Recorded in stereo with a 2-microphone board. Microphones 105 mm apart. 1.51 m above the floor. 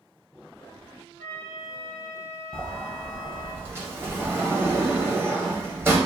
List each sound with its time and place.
1.2 s a flute: 65° right (ahead or behind), 2 m
2.5 s a sliding door: 25° right (ahead or behind), 0.9 m